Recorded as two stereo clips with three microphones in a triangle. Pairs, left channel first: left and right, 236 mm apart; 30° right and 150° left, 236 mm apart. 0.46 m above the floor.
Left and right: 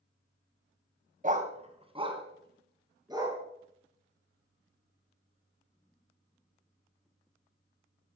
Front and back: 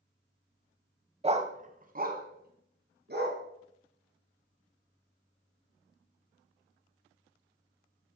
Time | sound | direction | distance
1.2 | a dog barking | 145° right | 1.1 m